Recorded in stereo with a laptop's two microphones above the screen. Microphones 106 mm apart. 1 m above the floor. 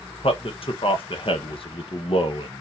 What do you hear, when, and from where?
0.2 s a man speaking: 60° left (ahead or behind), 0.8 m